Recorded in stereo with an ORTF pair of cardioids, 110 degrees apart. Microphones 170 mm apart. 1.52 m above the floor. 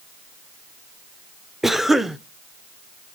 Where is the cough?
Straight ahead, 0.6 m.